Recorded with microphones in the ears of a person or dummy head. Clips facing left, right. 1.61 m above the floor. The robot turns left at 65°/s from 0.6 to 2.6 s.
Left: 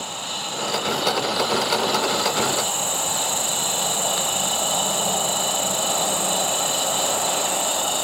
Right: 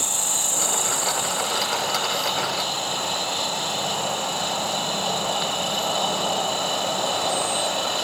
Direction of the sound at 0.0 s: 100° right.